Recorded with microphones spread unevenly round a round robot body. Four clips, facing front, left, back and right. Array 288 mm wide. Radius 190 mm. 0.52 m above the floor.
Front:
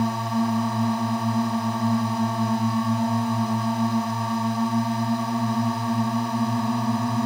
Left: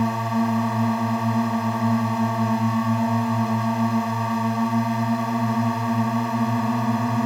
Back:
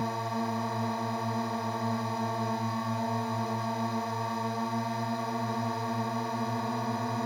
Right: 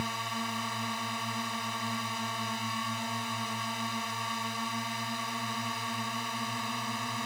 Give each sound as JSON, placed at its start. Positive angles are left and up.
{"t": 0.0, "sound": "a drone", "azimuth_deg": 55}